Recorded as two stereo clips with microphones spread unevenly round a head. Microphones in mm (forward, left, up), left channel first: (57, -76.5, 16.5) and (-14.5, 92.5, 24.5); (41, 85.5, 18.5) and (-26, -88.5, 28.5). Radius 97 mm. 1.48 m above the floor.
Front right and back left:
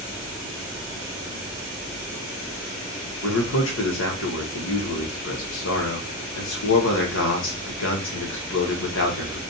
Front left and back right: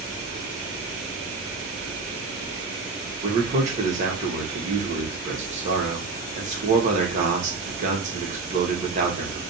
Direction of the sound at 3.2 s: 60° right.